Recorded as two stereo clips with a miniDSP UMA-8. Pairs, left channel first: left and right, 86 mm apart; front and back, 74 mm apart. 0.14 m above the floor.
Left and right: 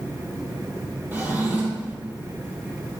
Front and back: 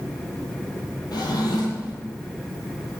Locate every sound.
1.1 s a drawer: 25° right, 1.6 m